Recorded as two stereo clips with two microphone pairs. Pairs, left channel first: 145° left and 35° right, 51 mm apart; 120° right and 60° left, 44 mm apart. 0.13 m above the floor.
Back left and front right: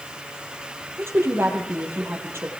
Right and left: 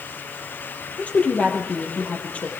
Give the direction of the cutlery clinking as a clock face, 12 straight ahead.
I don't hear cutlery clinking.